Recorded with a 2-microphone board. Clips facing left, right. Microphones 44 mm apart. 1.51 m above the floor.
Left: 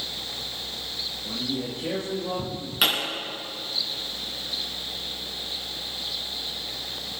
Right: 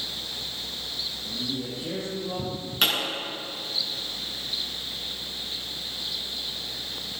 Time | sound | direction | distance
1.2 | a man speaking | 55° left (ahead or behind) | 3 m
2.8 | a pop | 5° left (ahead or behind) | 7 m